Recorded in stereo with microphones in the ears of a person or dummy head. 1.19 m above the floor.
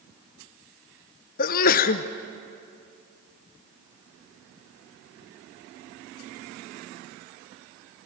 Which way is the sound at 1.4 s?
50° left (ahead or behind).